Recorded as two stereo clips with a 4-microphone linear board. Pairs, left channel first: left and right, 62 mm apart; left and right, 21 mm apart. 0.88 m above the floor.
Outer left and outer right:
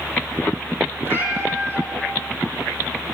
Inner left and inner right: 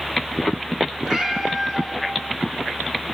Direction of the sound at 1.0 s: 35° right (ahead or behind).